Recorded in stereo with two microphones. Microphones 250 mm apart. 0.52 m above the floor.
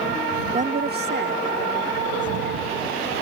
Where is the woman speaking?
25° right (ahead or behind); by 2.7 s 45° right (ahead or behind).